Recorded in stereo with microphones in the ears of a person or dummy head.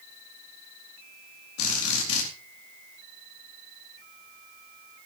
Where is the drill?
80° left, 4 m.